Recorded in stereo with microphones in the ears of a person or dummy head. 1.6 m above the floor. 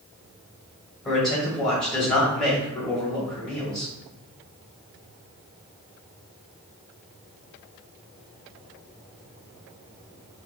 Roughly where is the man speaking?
Centre.